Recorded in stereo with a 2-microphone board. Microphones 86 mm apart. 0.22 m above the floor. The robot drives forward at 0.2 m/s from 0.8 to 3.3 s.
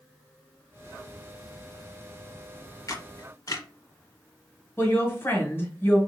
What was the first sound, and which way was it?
A camera shutter, 45° left (ahead or behind).